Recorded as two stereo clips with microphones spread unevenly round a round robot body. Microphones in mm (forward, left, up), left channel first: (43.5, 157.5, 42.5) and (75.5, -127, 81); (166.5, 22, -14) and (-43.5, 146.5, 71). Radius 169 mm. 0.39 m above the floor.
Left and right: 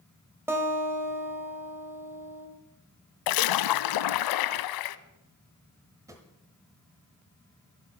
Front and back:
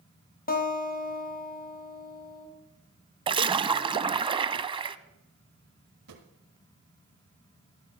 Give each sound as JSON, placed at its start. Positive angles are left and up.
{"t": 0.5, "sound": "a guitar", "azimuth_deg": 0, "distance_m": 2.5}
{"t": 3.3, "sound": "a splash", "azimuth_deg": 85, "distance_m": 0.5}
{"t": 6.1, "sound": "a drawer", "azimuth_deg": -165, "distance_m": 1.3}